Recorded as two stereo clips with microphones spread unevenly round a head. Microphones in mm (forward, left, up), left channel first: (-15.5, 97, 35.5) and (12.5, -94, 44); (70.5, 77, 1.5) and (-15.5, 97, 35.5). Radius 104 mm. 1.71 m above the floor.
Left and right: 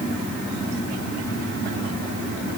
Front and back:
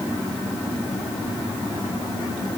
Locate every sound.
Only background noise.